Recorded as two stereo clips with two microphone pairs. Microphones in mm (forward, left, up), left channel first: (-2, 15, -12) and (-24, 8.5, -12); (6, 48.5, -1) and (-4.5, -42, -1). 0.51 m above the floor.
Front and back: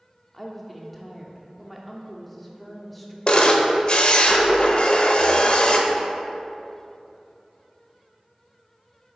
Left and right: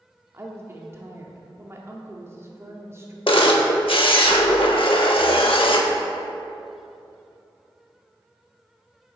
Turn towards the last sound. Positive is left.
turn(degrees=65)